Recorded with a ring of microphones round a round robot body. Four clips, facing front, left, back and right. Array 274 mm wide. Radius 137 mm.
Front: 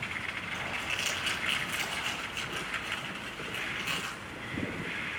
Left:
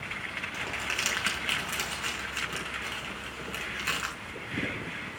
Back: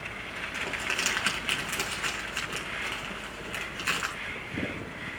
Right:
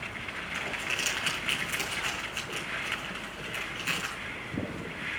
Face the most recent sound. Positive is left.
turn(degrees=160)